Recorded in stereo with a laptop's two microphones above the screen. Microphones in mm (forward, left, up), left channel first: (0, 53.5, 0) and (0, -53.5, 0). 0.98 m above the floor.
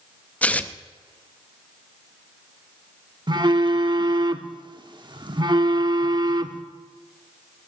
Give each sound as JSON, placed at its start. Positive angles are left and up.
{"t": 0.4, "sound": "tearing paper", "side_deg": 15, "distance_m": 0.6}
{"t": 3.3, "sound": "a phone buzzing", "side_deg": -45, "distance_m": 0.7}